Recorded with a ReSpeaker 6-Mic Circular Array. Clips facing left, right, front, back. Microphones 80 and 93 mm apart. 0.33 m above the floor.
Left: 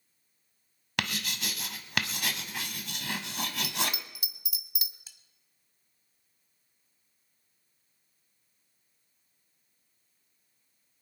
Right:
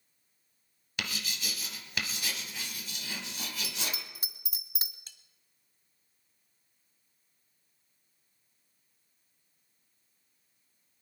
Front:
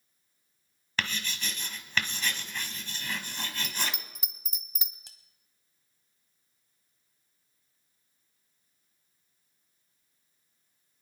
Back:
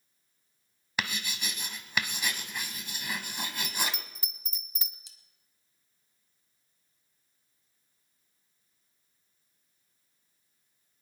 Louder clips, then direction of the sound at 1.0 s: Left 4 dB, even; 105° left.